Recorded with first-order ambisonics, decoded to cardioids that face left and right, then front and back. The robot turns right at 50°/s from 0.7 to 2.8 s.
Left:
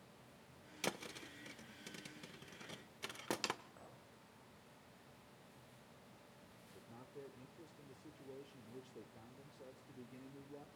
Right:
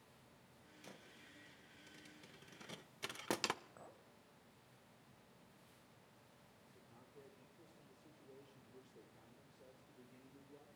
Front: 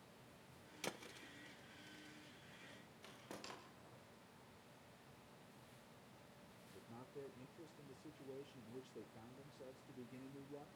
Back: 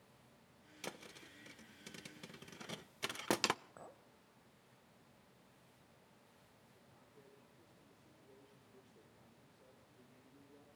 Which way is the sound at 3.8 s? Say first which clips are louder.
Even, back 7 dB; 170° right.